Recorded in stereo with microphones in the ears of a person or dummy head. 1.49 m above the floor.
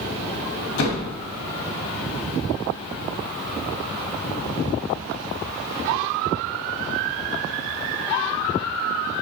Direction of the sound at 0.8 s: 75° left (ahead or behind).